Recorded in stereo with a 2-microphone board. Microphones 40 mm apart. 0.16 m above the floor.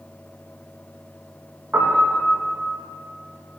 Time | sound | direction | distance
1.7 | a piano | 60° right (ahead or behind) | 4.5 m